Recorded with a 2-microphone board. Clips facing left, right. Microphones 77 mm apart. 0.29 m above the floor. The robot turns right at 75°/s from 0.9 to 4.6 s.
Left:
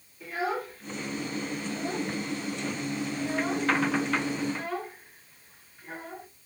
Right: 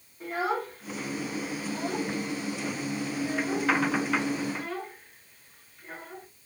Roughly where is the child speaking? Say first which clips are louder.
Right 2 dB; right.